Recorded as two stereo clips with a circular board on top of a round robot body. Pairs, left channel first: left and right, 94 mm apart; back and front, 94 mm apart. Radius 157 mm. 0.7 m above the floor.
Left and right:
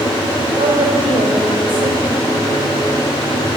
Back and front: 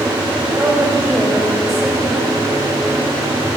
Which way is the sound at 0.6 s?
90° right.